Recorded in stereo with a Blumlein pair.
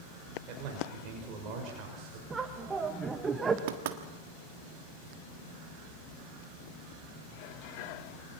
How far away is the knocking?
About 1.6 m.